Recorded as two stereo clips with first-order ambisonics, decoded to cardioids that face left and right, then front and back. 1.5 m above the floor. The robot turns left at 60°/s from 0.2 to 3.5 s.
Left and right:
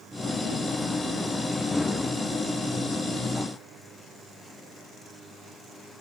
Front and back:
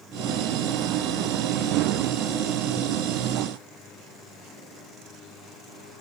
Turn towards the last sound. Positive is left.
No sound to turn to.